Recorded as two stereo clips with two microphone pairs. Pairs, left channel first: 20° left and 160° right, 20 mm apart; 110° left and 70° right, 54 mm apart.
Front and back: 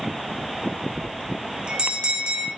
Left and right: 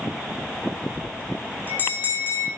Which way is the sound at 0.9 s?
165° left.